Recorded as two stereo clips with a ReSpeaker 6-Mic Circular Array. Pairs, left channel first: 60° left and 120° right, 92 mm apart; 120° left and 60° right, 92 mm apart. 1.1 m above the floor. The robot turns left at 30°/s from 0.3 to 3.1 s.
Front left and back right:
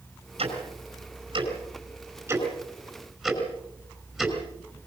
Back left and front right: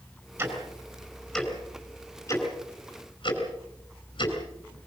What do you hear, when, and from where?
0.4 s ticking: 125° right, 5 m; by 4.4 s 155° left, 5 m